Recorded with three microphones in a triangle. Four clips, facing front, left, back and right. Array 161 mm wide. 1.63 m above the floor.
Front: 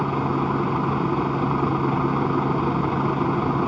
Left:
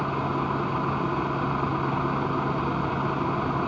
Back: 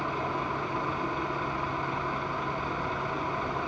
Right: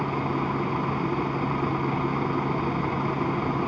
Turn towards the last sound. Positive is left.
turn(degrees=-10)